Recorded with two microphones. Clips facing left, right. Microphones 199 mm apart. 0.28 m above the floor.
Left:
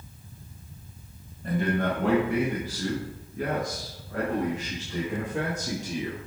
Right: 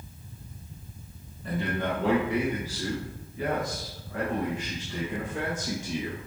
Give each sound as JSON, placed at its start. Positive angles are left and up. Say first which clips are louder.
{"t": 1.4, "sound": "a man speaking", "louder": "left 4 dB", "side_deg": 50, "distance_m": 2.0}